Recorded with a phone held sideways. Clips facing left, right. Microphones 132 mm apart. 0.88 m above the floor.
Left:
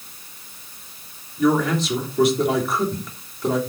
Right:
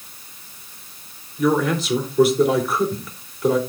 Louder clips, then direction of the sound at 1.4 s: Even; centre (ahead or behind).